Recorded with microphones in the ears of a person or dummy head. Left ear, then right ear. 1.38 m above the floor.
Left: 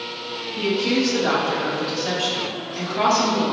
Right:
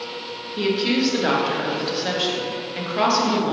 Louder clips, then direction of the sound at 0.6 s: Even; 30° right (ahead or behind).